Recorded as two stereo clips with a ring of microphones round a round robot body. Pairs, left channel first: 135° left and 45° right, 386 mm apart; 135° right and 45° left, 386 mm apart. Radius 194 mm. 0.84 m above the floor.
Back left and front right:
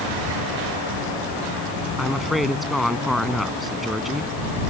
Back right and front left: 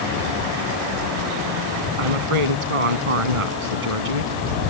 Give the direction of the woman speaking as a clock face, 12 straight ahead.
11 o'clock.